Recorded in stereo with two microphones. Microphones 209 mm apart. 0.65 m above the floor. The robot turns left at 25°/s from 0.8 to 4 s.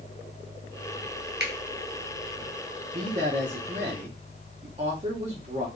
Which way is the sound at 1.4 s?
55° right (ahead or behind).